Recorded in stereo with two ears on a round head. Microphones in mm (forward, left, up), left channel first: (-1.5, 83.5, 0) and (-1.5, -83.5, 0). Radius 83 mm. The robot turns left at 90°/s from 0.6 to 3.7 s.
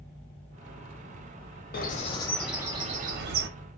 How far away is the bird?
About 0.6 m.